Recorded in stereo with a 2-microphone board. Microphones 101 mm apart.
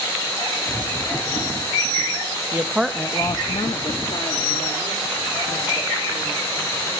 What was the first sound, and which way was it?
A woman speaking, 30° right (ahead or behind).